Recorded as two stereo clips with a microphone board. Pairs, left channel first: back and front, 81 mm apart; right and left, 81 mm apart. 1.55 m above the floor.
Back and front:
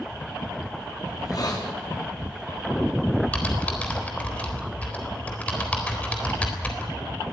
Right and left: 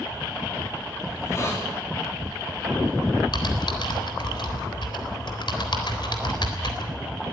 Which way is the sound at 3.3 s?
110° right.